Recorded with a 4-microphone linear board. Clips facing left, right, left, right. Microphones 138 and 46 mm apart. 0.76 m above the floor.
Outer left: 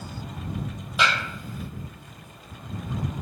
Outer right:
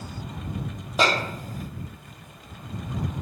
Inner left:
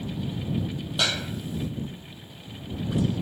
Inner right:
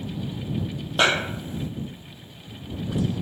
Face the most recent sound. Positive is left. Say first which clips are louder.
# outer right 3 dB, inner right 7 dB
turn(degrees=-40)  # may be behind; listen again after turning